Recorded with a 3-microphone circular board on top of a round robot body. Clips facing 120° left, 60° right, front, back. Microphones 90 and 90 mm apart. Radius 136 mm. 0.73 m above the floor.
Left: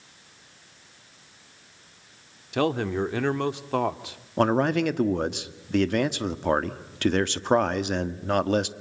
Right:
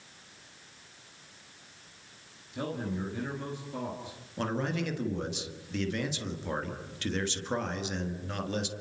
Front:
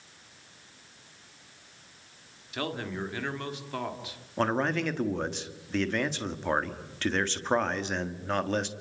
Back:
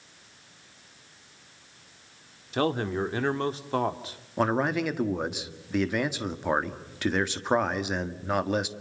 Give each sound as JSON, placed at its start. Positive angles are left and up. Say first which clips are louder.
{"t": 2.5, "sound": "a man speaking", "louder": "left 10 dB, back 7 dB", "azimuth_deg": 125, "distance_m": 1.8}
{"t": 4.4, "sound": "a man speaking", "louder": "left 10 dB, back 2 dB", "azimuth_deg": 100, "distance_m": 1.8}